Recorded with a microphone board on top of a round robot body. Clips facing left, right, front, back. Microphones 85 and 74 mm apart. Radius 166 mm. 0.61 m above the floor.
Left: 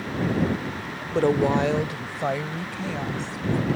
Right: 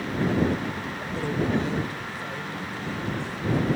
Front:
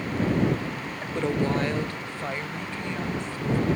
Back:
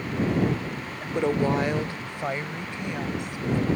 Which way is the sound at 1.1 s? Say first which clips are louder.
Left 6 dB, back 2 dB; 110° left.